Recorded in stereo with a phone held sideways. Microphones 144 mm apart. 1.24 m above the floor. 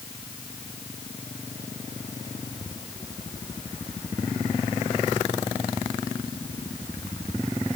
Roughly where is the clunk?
I don't hear a clunk.